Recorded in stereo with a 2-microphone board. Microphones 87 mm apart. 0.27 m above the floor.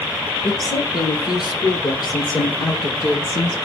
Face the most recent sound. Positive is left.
turn(degrees=60)  # may be behind; listen again after turning